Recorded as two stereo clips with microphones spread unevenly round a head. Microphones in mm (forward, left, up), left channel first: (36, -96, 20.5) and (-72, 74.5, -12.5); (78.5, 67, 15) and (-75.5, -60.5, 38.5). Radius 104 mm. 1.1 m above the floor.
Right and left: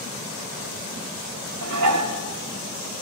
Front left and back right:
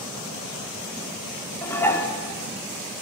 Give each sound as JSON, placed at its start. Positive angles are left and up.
{"t": 1.6, "sound": "dishes clattering", "azimuth_deg": 120, "distance_m": 1.9}